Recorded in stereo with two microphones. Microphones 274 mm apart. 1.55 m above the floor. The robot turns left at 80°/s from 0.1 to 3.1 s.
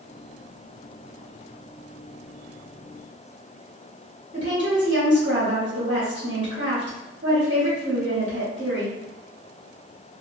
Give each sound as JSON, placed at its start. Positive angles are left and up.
{"t": 4.3, "sound": "a woman speaking", "side_deg": -40, "distance_m": 1.2}